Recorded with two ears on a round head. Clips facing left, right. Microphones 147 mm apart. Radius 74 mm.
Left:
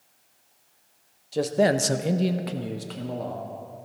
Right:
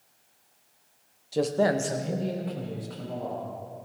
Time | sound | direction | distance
1.3 | a man speaking | 5° right (ahead or behind) | 0.7 m